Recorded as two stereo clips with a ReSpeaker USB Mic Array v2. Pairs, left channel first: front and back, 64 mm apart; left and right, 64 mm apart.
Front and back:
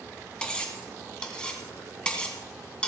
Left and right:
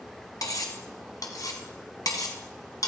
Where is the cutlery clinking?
75° left, 1.7 m.